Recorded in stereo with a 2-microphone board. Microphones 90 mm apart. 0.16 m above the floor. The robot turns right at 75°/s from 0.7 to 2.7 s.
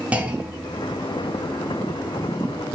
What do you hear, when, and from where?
0.1 s a clunk: 15° right (ahead or behind), 0.6 m; by 0.9 s 20° right (ahead or behind), 0.6 m